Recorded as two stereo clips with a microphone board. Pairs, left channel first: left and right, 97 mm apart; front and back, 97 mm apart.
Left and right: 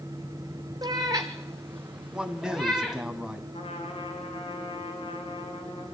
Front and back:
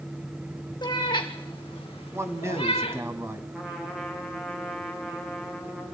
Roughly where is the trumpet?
Left.